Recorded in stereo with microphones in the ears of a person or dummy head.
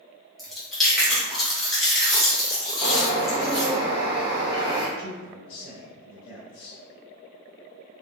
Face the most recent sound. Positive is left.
turn(degrees=45)  # may be behind; listen again after turning